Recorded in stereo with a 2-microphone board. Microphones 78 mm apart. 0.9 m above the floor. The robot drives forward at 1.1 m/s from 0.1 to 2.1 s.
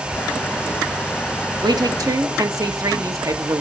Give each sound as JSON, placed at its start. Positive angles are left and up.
{"t": 1.6, "sound": "a woman speaking", "side_deg": -65, "distance_m": 1.1}